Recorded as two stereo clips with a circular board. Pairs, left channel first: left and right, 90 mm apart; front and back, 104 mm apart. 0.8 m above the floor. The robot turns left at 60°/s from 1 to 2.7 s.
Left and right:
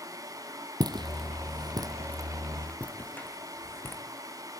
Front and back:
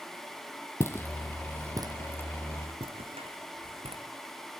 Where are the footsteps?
60° right, 1.5 m; by 4.0 s 155° left, 3.5 m.